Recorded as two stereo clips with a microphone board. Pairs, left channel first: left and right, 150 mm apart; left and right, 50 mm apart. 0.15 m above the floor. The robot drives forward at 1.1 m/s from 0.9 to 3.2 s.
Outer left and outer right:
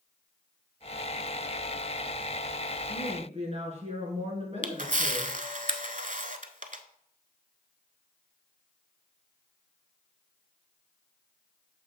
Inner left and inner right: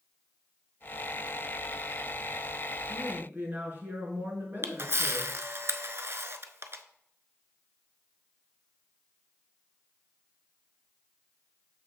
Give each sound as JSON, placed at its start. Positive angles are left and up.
{"t": 2.9, "sound": "a woman speaking", "side_deg": -40, "distance_m": 2.5}
{"t": 4.6, "sound": "a camera shutter", "side_deg": -60, "distance_m": 0.6}